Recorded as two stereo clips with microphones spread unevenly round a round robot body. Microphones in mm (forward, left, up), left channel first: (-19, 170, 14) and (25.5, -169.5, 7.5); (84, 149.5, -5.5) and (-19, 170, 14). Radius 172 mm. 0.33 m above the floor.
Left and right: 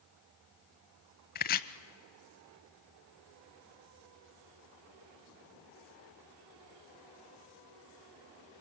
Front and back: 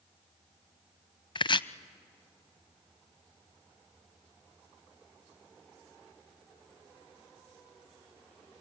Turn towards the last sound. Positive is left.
turn(degrees=30)